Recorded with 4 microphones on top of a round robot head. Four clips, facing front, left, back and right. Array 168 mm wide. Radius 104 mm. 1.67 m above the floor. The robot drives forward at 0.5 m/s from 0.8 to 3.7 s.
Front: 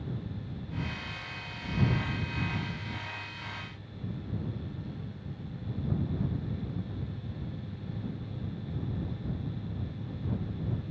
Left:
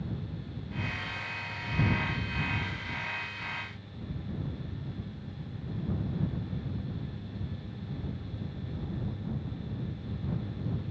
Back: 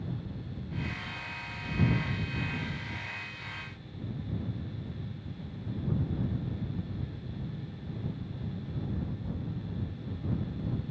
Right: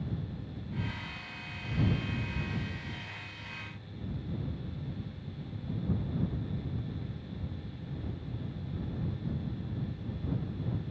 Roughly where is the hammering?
I don't hear hammering.